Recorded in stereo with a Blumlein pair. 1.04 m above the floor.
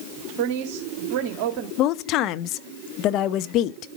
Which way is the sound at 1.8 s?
40° left.